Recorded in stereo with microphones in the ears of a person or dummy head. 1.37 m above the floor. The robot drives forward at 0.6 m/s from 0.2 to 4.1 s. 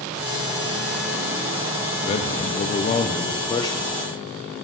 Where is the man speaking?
35° left (ahead or behind), 0.5 m; by 4.0 s 20° left (ahead or behind), 1.0 m.